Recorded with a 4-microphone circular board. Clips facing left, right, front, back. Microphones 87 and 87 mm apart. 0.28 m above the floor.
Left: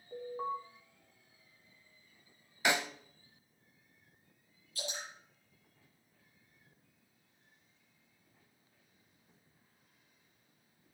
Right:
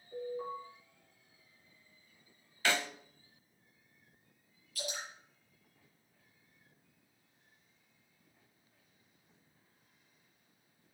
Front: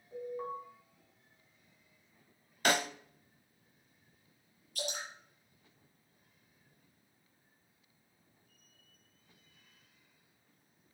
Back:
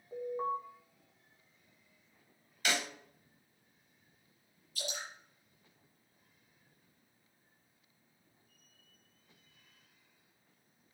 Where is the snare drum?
25° left, 0.6 m.